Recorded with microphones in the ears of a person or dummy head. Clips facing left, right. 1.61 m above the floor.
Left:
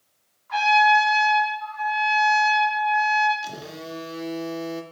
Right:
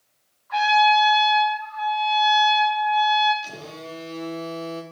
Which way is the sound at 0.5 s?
45° left (ahead or behind).